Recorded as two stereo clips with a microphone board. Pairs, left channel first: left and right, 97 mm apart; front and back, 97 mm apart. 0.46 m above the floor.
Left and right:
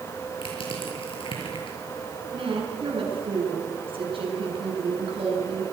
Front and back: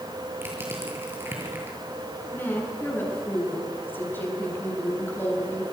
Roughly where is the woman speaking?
Right.